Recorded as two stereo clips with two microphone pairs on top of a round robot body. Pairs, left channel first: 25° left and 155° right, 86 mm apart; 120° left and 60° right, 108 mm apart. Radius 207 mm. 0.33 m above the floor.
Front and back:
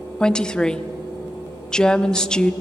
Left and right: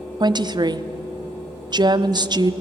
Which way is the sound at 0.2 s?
45° right.